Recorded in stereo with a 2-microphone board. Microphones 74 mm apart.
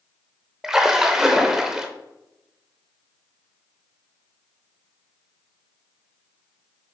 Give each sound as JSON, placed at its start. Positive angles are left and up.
{"t": 0.6, "sound": "a splash", "side_deg": -5, "distance_m": 0.8}